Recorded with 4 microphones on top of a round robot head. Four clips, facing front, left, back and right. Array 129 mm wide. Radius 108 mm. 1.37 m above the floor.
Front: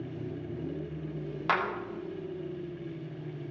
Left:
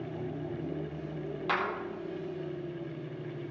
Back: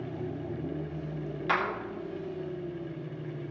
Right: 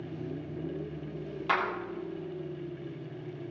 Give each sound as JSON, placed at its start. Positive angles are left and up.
{"t": 1.5, "sound": "a clap", "azimuth_deg": 5, "distance_m": 1.3}